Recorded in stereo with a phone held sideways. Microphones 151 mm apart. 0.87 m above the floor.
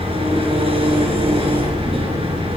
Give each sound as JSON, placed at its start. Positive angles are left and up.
{"t": 0.0, "sound": "an engine running", "side_deg": -40, "distance_m": 5.0}